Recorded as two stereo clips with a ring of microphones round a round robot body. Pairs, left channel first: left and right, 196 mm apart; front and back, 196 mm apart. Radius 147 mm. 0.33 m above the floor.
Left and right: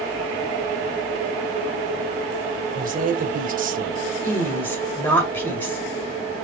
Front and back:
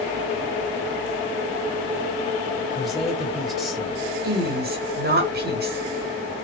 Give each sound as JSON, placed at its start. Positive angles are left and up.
{"t": 2.7, "sound": "a man speaking", "azimuth_deg": -90, "distance_m": 1.3}
{"t": 4.2, "sound": "a woman speaking", "azimuth_deg": 170, "distance_m": 1.9}